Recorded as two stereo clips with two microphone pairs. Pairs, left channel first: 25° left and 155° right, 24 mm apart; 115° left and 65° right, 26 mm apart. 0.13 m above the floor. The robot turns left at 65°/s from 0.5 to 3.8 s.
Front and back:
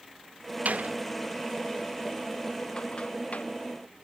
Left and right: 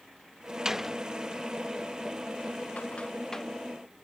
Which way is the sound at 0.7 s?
135° right.